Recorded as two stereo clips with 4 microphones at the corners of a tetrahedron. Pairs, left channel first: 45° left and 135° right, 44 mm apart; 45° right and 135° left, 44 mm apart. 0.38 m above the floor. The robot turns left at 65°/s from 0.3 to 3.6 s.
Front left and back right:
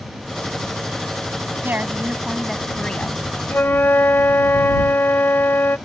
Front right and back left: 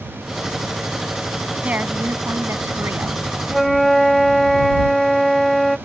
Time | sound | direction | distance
1.6 | a woman speaking | 170° right | ?
3.5 | a flute | 45° left | ?